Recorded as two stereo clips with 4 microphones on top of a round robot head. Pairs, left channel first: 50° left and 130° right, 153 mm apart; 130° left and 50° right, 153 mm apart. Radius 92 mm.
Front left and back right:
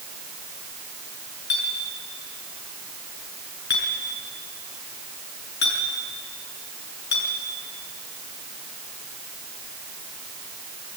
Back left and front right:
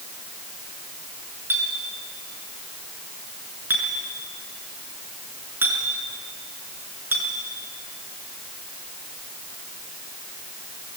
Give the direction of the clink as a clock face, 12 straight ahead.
11 o'clock.